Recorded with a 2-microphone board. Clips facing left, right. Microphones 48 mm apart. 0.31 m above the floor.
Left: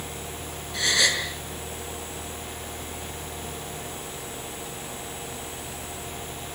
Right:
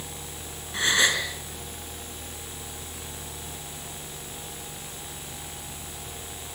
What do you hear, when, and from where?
0.7 s a gasp: 25° right (ahead or behind), 4.5 m